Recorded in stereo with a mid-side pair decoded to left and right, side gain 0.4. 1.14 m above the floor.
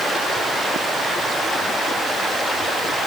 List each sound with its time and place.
Only background noise.